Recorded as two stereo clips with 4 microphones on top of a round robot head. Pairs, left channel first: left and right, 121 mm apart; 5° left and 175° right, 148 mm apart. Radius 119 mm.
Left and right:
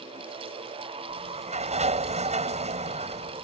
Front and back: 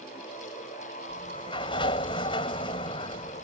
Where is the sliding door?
60° right.